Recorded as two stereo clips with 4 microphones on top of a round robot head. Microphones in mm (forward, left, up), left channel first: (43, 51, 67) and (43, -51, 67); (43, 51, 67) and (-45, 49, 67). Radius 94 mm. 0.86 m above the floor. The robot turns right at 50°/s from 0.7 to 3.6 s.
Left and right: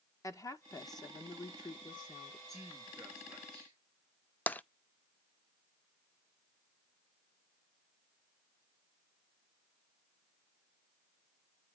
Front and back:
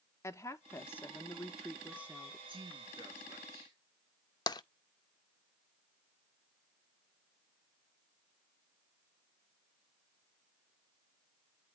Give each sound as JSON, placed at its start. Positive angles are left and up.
{"t": 0.2, "sound": "a woman speaking", "azimuth_deg": 45, "distance_m": 1.2}
{"t": 2.5, "sound": "a man speaking", "azimuth_deg": 175, "distance_m": 1.8}
{"t": 4.5, "sound": "tapping", "azimuth_deg": 20, "distance_m": 0.5}